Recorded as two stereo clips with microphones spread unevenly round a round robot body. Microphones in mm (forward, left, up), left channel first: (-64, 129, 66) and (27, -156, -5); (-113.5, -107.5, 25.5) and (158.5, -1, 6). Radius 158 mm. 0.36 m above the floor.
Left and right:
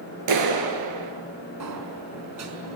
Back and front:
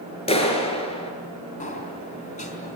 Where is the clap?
90° right, 5 m.